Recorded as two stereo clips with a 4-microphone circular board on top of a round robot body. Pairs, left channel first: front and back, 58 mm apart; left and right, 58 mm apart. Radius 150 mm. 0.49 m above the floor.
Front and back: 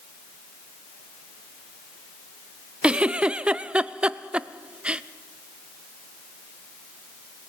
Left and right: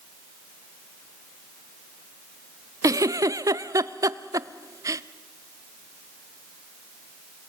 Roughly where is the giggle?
Right.